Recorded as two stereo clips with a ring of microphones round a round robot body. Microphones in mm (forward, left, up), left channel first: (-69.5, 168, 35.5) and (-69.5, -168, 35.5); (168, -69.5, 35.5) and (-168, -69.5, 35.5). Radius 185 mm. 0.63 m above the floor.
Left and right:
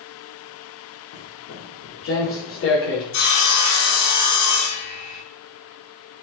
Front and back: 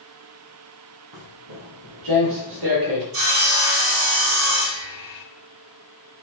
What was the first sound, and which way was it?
Footsteps, 140° left.